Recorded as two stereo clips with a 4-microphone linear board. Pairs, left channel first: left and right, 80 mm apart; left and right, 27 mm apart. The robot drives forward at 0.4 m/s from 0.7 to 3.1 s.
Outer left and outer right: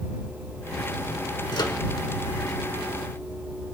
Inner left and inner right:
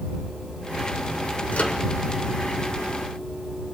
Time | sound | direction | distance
1.5 | a microwave | 60° left (ahead or behind) | 1.3 m